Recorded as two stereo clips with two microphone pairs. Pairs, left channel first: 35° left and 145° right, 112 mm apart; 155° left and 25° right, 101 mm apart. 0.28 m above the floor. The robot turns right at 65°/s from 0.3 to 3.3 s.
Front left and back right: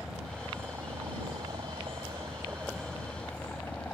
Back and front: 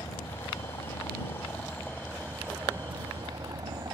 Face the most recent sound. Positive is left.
turn(degrees=-40)